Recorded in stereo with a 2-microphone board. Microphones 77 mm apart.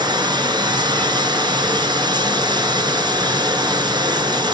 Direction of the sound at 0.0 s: 75° right (ahead or behind).